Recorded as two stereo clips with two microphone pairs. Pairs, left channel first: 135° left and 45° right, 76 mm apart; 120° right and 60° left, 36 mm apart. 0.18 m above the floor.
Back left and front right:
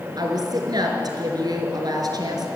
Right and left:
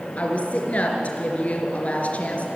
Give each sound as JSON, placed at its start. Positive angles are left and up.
{"t": 0.2, "sound": "a woman speaking", "azimuth_deg": -70, "distance_m": 3.5}